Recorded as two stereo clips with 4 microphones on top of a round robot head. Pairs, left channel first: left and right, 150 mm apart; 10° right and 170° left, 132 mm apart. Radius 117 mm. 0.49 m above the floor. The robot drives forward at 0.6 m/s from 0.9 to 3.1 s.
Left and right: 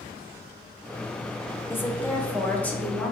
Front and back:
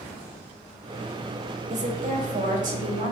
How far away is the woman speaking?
About 1.3 m.